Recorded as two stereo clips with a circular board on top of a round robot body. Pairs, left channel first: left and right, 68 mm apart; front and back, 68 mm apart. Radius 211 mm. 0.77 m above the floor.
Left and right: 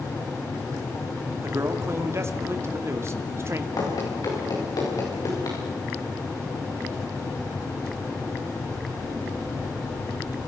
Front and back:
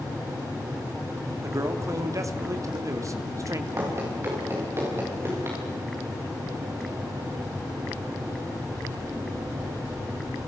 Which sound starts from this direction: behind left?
Running footsteps, at 3.8 s.